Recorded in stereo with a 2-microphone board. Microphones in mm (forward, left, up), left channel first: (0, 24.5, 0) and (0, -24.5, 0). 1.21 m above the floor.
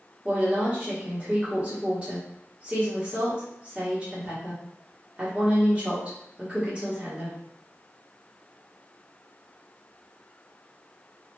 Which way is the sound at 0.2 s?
20° right (ahead or behind).